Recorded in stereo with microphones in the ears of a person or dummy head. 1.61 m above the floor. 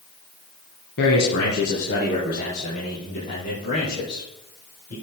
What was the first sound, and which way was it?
A man speaking, 60° left (ahead or behind).